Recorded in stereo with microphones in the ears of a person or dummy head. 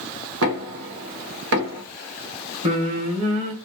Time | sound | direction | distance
0.4 | knocking | 70° right (ahead or behind) | 0.9 m
2.6 | singing | 30° right (ahead or behind) | 1.4 m